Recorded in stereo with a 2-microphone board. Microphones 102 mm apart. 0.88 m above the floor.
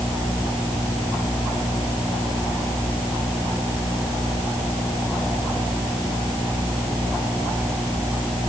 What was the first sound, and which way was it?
Only background noise.